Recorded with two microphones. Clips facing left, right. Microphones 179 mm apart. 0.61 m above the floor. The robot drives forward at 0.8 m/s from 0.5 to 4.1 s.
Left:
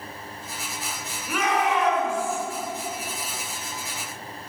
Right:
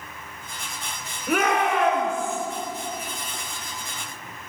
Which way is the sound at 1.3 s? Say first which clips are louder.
Right 2 dB; 70° right (ahead or behind).